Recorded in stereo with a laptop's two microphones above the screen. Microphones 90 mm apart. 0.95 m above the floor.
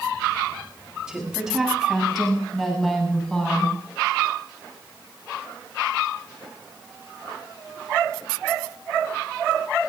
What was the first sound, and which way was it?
A woman speaking, 5° right (ahead or behind).